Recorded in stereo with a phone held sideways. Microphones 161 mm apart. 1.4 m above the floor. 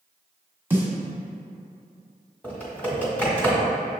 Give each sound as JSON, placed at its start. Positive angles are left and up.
{"t": 0.7, "sound": "a snare drum", "side_deg": -15, "distance_m": 1.5}
{"t": 2.4, "sound": "typing on a keyboard", "side_deg": 10, "distance_m": 1.8}